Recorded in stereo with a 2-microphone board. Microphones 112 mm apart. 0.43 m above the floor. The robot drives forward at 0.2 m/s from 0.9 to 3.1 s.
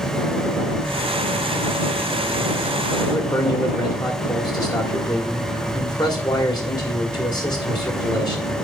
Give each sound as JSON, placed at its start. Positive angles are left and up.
{"t": 3.1, "sound": "a man speaking", "side_deg": 40, "distance_m": 1.8}